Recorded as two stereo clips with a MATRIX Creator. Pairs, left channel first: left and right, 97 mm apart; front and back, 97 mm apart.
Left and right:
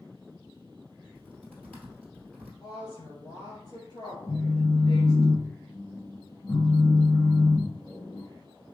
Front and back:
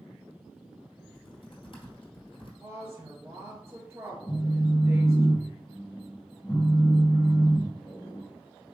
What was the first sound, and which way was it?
Typing on a keyboard, 15° left.